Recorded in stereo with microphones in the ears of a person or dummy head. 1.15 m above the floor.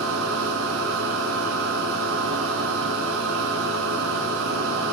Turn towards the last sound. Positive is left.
turn(degrees=-70)  # may be behind; listen again after turning